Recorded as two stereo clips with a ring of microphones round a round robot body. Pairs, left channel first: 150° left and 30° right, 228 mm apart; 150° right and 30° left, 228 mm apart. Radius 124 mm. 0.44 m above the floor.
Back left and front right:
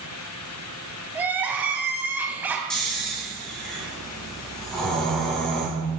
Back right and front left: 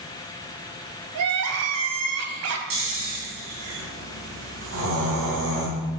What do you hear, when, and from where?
1.1 s crying: 50° left, 1.2 m
2.7 s snoring: 60° left, 3 m